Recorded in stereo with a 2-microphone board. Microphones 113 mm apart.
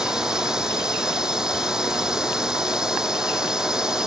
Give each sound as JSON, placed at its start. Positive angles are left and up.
{"t": 0.0, "sound": "a drone", "side_deg": -5}